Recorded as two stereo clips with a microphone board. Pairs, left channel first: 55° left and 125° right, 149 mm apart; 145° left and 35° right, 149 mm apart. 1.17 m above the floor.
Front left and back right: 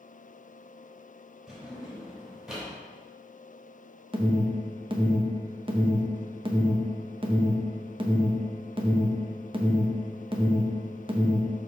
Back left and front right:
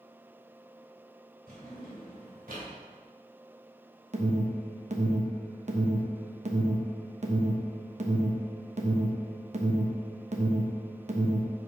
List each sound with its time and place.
1.5 s a drawer: 35° right, 3 m
4.1 s an alarm: 70° right, 1.0 m